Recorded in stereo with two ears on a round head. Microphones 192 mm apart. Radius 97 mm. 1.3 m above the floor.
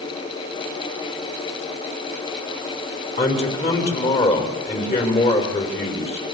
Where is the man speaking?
30° left (ahead or behind), 5.5 m.